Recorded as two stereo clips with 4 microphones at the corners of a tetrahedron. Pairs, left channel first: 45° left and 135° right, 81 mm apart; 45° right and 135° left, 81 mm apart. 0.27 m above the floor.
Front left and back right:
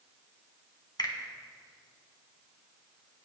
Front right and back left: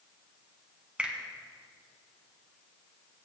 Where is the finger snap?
60° left, 1.7 m.